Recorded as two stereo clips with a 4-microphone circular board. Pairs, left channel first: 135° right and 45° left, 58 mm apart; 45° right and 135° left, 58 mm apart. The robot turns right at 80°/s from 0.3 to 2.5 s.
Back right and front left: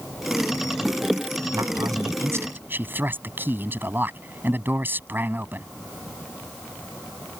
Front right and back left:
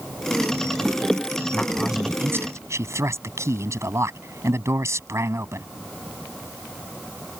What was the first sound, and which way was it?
A man speaking, 25° left.